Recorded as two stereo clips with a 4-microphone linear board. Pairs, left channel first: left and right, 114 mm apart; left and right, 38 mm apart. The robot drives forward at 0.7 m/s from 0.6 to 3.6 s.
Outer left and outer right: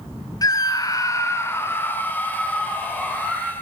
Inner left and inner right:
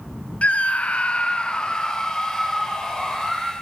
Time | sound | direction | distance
0.4 | a scream | 35° left (ahead or behind) | 0.6 m